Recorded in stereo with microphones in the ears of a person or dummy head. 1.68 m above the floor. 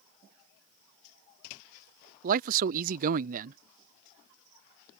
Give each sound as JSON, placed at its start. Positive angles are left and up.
{"t": 2.2, "sound": "a man speaking", "side_deg": -50}